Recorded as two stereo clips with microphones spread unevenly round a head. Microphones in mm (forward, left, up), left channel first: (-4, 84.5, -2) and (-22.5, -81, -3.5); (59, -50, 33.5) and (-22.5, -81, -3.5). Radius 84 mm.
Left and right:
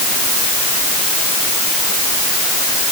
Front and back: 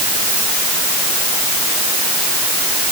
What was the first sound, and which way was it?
Only background noise.